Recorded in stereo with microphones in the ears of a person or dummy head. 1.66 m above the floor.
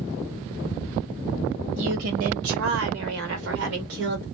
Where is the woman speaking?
65° right (ahead or behind), 0.8 m.